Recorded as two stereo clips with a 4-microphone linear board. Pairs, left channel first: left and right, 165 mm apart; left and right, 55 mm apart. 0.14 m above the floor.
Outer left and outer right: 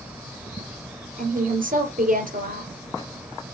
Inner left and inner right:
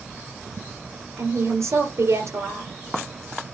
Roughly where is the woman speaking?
Right.